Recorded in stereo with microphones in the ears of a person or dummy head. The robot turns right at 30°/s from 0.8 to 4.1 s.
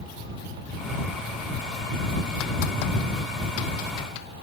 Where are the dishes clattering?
No dishes clattering in this recording.